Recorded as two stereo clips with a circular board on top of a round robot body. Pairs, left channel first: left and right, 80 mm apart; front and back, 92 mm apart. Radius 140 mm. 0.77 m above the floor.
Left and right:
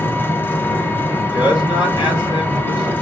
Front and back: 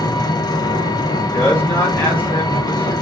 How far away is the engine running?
About 1.1 m.